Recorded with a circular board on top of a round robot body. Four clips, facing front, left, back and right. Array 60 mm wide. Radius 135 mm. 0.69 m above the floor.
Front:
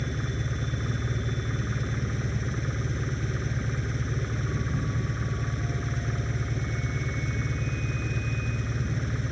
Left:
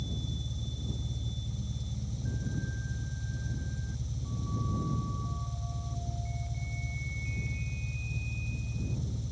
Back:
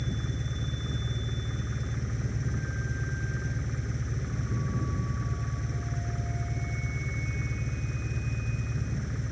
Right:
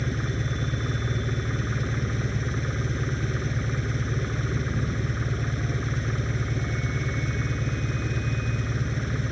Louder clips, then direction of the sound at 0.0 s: Right 11 dB, front 3 dB; 70° right.